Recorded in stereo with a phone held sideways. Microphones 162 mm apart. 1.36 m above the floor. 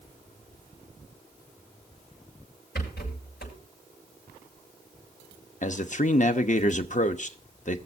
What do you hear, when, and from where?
2.8 s a rattle: 70° left (ahead or behind), 7 m
5.6 s a man speaking: 45° left (ahead or behind), 0.9 m